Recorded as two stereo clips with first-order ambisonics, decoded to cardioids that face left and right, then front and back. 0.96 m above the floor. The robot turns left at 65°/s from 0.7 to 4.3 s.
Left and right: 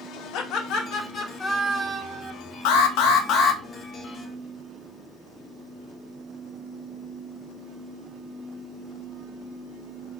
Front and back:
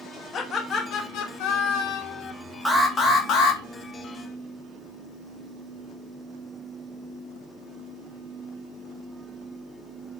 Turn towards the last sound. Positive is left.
turn(degrees=-20)